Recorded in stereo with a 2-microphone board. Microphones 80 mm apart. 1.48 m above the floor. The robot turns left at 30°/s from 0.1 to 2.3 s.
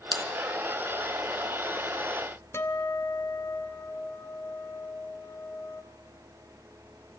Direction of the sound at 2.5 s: 35° left (ahead or behind).